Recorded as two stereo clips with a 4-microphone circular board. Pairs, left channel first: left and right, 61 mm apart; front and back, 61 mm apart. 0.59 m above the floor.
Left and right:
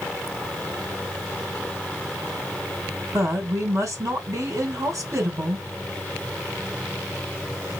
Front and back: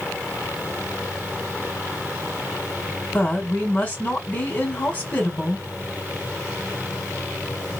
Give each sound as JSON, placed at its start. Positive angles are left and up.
{"t": 3.1, "sound": "a woman speaking", "azimuth_deg": -60, "distance_m": 2.5}